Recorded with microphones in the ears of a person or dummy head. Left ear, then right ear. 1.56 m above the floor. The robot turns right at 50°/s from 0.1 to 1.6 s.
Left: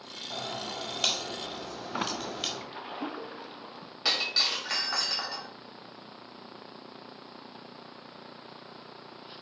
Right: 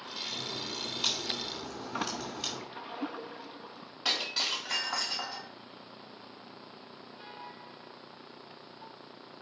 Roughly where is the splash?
Centre.